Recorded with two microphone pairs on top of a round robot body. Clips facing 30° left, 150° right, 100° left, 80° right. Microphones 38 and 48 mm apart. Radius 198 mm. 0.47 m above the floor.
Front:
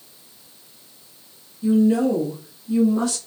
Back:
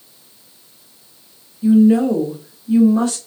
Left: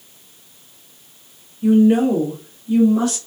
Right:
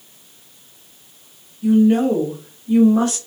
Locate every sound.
1.6 s a woman speaking: 150° left, 1.4 m; by 3.2 s 125° right, 1.8 m